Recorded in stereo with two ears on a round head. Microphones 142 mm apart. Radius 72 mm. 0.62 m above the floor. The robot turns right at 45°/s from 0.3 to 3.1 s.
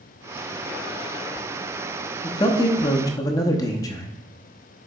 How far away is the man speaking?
About 0.7 m.